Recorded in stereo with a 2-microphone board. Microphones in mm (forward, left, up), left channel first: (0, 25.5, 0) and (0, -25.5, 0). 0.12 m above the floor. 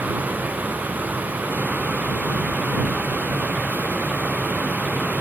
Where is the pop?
No pop in this recording.